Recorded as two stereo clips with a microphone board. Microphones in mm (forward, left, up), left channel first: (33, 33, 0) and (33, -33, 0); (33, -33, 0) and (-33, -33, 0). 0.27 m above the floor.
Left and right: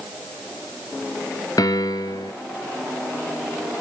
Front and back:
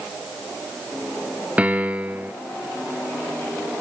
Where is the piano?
110° left, 1.4 m.